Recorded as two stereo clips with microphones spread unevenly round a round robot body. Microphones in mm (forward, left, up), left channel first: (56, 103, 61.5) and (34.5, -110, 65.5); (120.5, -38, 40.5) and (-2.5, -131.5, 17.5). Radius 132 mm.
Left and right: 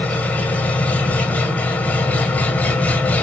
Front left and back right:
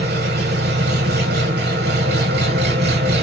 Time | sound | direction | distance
0.0 | an engine running | 170° left | 1.7 m